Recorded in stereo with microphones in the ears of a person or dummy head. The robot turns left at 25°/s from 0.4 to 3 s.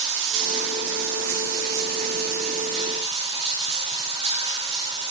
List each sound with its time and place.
0.0 s running water: 80° right, 1.2 m; by 5.1 s 145° right, 1.2 m